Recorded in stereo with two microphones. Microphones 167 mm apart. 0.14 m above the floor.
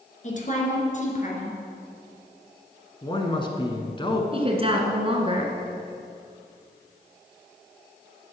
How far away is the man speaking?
About 1.2 m.